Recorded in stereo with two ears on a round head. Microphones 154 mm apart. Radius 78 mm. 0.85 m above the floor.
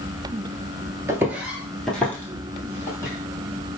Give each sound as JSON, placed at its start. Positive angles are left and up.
{"t": 1.1, "sound": "footsteps", "side_deg": -15, "distance_m": 0.9}